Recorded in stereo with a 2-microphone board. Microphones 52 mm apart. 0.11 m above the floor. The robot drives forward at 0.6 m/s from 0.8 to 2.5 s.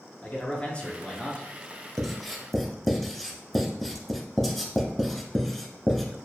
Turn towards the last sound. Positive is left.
turn(degrees=5)  # may be behind; listen again after turning